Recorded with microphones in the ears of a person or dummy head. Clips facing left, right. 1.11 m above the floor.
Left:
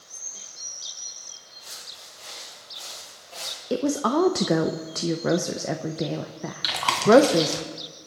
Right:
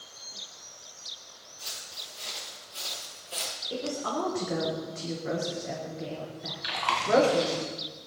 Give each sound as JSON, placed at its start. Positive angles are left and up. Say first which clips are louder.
{"t": 1.6, "sound": "footsteps", "louder": "even", "side_deg": -60, "distance_m": 6.5}
{"t": 3.7, "sound": "a woman speaking", "louder": "left 9 dB", "side_deg": 70, "distance_m": 0.8}
{"t": 6.6, "sound": "chewing", "louder": "left 10 dB", "side_deg": 65, "distance_m": 2.5}